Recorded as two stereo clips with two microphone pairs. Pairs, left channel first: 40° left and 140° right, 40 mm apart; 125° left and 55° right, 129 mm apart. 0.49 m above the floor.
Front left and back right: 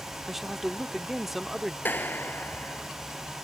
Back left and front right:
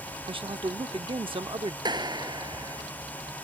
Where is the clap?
5° left.